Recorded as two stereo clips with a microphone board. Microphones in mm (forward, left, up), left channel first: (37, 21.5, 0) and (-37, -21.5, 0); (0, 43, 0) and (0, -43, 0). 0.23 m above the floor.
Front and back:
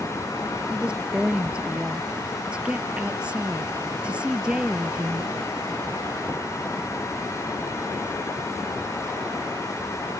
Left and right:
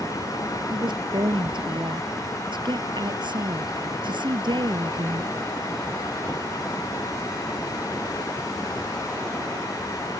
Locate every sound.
0.7 s a woman speaking: 70° right